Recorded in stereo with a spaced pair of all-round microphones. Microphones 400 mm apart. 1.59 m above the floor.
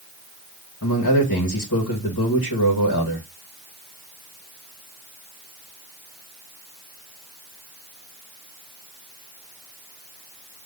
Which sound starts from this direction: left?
A man speaking, at 0.8 s.